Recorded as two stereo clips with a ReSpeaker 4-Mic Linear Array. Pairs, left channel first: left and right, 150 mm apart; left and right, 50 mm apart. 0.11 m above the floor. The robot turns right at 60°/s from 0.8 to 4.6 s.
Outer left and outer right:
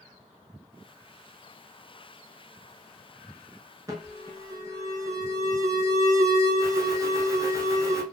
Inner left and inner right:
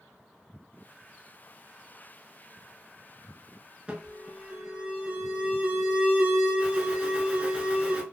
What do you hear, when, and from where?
3.9 s an alarm: 25° right (ahead or behind), 0.8 m